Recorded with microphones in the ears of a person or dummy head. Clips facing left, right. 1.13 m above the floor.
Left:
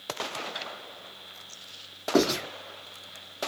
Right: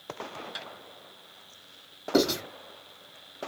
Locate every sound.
0.6 s tapping: 50° right (ahead or behind), 1.7 m
2.1 s writing: 25° right (ahead or behind), 1.8 m